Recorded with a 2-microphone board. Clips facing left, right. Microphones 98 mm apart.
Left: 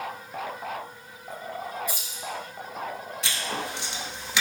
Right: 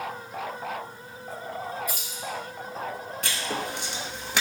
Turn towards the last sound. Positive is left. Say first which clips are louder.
# right 1 dB
turn(degrees=-55)  # may be behind; listen again after turning